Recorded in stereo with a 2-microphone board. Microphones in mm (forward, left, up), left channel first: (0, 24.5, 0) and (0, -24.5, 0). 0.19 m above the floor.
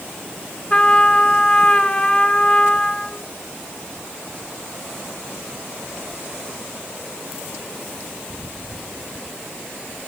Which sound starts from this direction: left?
A trumpet, at 0.7 s.